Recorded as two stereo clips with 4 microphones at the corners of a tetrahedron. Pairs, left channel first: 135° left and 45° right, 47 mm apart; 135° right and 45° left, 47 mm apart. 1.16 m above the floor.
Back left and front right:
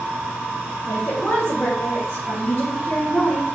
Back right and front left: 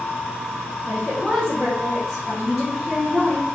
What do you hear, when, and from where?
0.9 s a woman speaking: 120° left, 1.2 m